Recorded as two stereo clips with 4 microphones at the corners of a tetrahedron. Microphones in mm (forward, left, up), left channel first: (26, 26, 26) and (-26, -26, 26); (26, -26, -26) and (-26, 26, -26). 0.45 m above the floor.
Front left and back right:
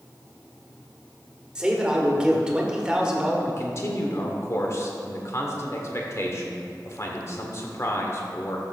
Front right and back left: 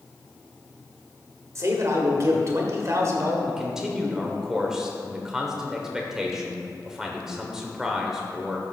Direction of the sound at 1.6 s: 150° left.